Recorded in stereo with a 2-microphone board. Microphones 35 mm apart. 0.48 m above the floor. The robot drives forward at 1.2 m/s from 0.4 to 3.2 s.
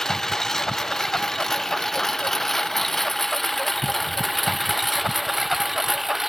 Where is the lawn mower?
15° left (ahead or behind); by 6.3 s 5° right (ahead or behind).